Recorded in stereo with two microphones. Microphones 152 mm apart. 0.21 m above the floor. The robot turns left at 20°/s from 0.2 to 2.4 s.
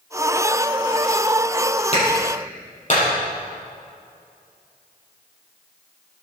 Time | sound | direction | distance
1.9 | a clap | 45° left (ahead or behind) | 6.5 m